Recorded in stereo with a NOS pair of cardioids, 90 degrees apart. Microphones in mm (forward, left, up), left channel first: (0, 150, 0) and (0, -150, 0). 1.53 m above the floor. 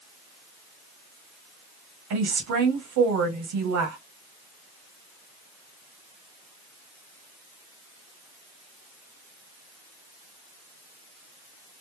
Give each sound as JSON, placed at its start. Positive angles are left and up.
{"t": 2.1, "sound": "a woman speaking", "azimuth_deg": -70, "distance_m": 1.8}